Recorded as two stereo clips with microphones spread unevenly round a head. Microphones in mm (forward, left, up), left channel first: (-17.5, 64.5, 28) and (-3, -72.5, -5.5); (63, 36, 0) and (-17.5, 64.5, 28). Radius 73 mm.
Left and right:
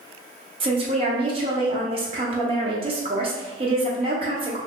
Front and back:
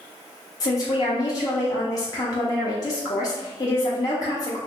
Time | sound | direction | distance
0.6 | a woman speaking | 55° right | 0.6 m